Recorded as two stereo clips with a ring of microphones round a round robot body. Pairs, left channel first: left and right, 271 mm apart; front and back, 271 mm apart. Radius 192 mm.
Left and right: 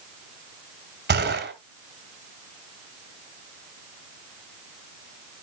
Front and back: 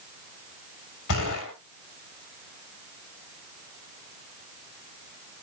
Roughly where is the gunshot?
Ahead right.